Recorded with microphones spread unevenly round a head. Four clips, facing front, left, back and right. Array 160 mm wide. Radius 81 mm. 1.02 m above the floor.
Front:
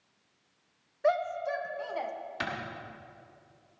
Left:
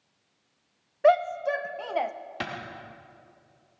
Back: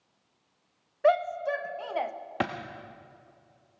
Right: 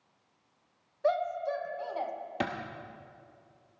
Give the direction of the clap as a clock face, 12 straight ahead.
5 o'clock.